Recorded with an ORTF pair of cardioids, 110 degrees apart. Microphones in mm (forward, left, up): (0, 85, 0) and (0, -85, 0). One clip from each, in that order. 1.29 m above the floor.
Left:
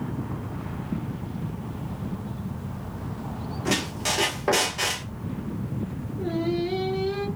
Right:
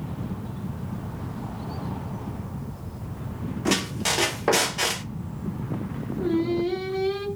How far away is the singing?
About 1.8 m.